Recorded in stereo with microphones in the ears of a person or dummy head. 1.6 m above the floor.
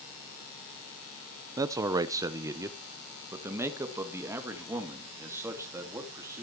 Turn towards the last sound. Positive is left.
turn(degrees=-10)  # may be behind; listen again after turning